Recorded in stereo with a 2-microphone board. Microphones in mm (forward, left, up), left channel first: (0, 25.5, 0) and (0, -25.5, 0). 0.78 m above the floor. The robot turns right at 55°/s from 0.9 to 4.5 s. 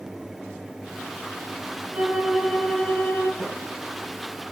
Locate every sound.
1.9 s a violin: 35° right, 5 m; by 3.3 s 45° left, 5 m
3.4 s a snare drum: 15° left (ahead or behind), 5 m; by 3.6 s 25° left (ahead or behind), 5 m